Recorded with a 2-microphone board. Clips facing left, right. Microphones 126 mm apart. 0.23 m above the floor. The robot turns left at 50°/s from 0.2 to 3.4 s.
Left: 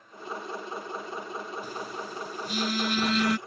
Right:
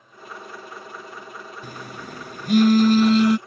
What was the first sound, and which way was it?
A phone buzzing, 70° right.